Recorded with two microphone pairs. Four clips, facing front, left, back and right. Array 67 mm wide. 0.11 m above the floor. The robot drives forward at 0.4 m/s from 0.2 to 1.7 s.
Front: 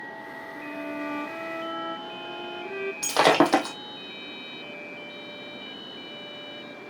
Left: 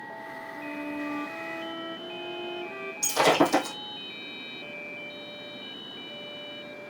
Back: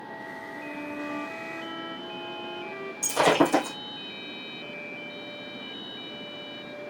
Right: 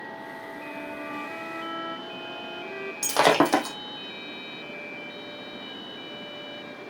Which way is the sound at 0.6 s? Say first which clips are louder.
Left 4 dB, front 3 dB; 45° right.